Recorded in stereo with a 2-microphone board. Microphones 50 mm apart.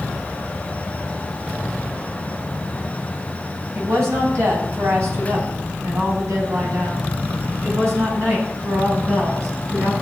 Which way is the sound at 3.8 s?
65° right (ahead or behind).